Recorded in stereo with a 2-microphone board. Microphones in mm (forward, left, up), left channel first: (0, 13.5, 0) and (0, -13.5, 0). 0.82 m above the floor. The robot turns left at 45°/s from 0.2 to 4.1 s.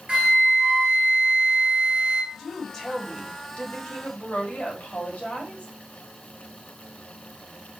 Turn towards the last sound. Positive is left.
turn(degrees=110)